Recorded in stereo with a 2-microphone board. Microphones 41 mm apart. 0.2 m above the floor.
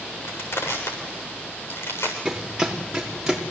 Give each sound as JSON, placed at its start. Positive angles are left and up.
{"t": 0.2, "sound": "crushing", "side_deg": 65, "distance_m": 7.5}
{"t": 2.2, "sound": "running footsteps", "side_deg": -15, "distance_m": 5.0}